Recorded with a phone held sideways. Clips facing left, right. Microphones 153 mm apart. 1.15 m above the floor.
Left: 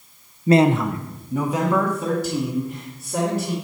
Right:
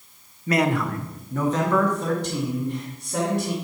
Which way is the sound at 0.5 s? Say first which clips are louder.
Left 6 dB; 30° left (ahead or behind).